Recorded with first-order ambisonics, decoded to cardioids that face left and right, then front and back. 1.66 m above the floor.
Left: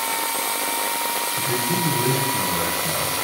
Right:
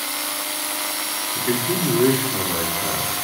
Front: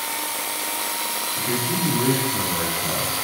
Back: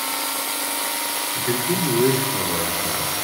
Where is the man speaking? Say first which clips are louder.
Even, back 3 dB; 115° right, 3 m; by 3.2 s 85° right, 3.5 m.